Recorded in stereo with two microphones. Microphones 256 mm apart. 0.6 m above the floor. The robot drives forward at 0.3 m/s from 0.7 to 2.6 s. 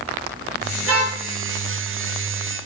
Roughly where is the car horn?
Right.